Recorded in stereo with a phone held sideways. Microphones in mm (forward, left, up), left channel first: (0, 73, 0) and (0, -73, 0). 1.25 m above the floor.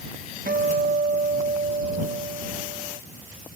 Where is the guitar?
75° right (ahead or behind).